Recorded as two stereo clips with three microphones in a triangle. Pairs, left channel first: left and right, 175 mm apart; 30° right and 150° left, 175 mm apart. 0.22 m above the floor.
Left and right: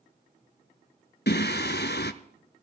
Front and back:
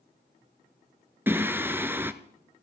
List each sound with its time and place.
1.3 s singing: 75° left, 0.8 m